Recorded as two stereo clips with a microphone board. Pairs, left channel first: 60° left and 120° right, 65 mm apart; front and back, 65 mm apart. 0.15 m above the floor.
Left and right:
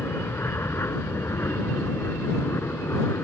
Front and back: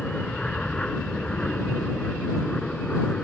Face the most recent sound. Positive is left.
turn(degrees=65)